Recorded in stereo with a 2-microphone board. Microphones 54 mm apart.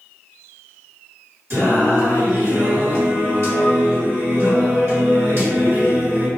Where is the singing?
50° right (ahead or behind), 1.8 m.